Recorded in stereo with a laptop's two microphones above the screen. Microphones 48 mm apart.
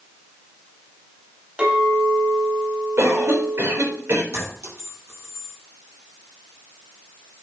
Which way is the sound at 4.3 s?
65° right (ahead or behind).